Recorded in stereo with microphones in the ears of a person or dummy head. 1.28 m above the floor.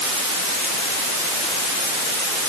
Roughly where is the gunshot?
I don't hear a gunshot.